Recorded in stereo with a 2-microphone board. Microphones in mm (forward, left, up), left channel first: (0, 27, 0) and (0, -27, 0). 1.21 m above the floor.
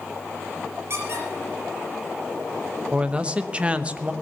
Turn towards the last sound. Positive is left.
turn(degrees=-20)  # may be behind; listen again after turning